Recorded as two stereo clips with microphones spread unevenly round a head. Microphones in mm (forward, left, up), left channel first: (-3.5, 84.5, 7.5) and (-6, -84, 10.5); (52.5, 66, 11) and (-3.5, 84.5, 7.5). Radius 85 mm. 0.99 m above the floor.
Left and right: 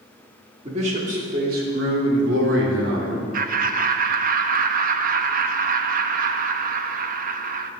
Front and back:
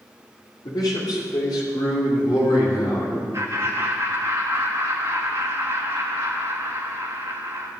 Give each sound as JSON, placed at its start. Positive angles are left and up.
{"t": 0.7, "sound": "a man speaking", "azimuth_deg": -35, "distance_m": 3.0}
{"t": 3.3, "sound": "laughter", "azimuth_deg": -130, "distance_m": 1.0}